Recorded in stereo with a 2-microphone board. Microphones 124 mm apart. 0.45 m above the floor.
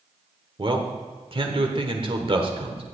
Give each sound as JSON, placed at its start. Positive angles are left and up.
{"t": 0.6, "sound": "a man speaking", "side_deg": -45, "distance_m": 1.3}